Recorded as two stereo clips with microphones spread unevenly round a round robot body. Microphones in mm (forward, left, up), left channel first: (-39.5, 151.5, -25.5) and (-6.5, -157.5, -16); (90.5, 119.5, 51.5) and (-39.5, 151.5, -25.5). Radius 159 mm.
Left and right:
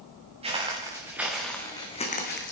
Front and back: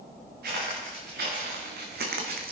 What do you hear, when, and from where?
0.4 s footsteps: 155° right, 4 m; by 2.5 s 150° left, 2.5 m